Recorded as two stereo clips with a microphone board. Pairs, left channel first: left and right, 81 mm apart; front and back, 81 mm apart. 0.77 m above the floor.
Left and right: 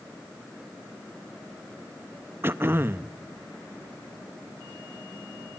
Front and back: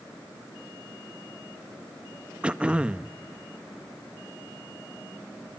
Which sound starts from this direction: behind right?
Throat clearing, at 2.4 s.